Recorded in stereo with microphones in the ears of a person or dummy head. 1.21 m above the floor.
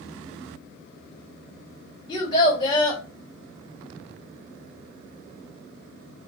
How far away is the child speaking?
About 1.3 m.